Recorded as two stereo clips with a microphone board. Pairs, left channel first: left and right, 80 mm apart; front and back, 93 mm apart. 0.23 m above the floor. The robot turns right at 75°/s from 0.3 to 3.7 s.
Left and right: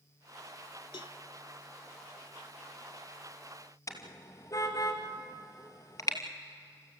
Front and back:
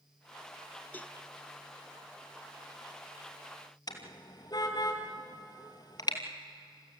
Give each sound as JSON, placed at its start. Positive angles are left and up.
{"t": 0.9, "sound": "a cowbell", "azimuth_deg": 70, "distance_m": 0.7}
{"t": 3.9, "sound": "a car horn", "azimuth_deg": 40, "distance_m": 2.5}